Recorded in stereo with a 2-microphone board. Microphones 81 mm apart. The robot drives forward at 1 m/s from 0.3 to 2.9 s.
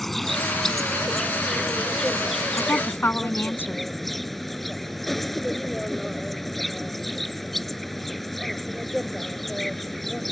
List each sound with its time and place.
0.0 s an insect: 5° left (ahead or behind); by 10.3 s centre (ahead or behind)
2.6 s a woman speaking: 30° left (ahead or behind); by 3.8 s 25° left (ahead or behind)